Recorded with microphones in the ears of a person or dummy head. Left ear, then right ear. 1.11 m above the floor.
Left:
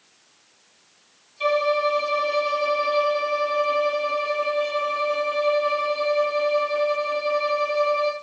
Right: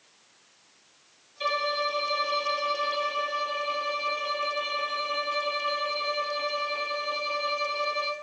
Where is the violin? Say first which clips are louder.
Left 6 dB; centre (ahead or behind), 7.5 m.